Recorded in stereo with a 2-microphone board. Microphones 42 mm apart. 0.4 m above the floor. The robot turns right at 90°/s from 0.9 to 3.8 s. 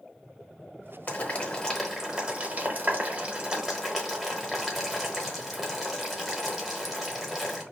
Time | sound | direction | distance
1.1 | boiling | 40° left (ahead or behind) | 0.8 m